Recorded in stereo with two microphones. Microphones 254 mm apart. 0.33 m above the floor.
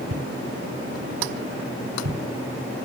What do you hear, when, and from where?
0.1 s footsteps: 60° right (ahead or behind), 2.5 m; by 2.2 s 85° right, 3.5 m